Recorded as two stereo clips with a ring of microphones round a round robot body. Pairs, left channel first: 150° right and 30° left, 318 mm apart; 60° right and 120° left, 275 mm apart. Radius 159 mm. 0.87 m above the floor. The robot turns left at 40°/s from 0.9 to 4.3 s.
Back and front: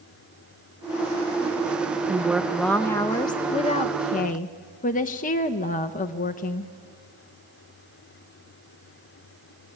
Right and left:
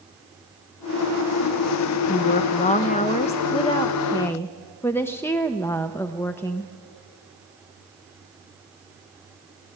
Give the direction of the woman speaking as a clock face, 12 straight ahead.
1 o'clock.